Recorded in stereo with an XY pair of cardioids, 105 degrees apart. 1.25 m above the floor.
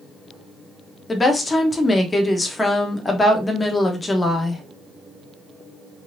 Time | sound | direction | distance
1.1 | a woman speaking | 20° left | 1.0 m